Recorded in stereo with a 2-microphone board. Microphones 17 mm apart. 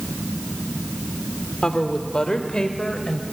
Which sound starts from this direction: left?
A woman speaking, at 1.6 s.